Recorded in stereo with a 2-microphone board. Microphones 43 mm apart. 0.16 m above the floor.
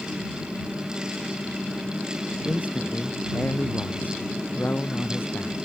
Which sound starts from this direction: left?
A man speaking, at 2.5 s.